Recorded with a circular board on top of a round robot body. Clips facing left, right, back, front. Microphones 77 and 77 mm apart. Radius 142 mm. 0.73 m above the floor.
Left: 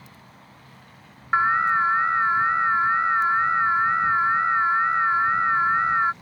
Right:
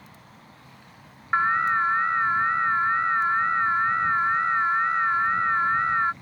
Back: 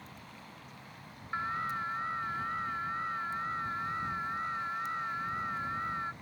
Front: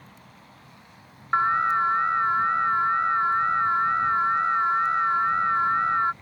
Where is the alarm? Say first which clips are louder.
Left 2 dB, front 13 dB; 10° left.